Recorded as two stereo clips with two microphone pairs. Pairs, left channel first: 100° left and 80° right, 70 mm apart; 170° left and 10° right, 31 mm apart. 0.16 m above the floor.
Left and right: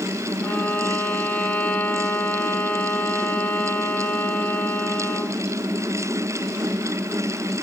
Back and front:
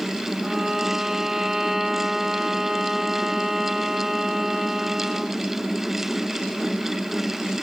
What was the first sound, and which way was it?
A violin, 55° left.